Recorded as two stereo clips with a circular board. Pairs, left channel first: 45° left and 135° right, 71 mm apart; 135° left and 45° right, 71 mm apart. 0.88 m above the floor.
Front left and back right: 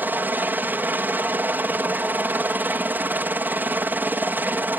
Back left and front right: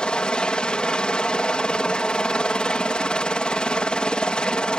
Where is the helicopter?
160° right.